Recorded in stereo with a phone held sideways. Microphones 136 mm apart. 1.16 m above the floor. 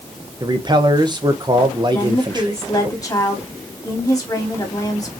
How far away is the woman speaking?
About 2 m.